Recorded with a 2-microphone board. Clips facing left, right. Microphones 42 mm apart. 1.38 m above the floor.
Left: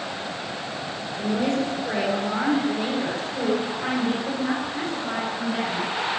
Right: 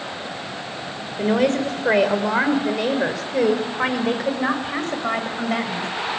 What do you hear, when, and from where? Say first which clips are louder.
1.2 s a woman speaking: right 5 dB; 70° right (ahead or behind), 4.5 m; by 5.9 s 65° right (ahead or behind), 6.5 m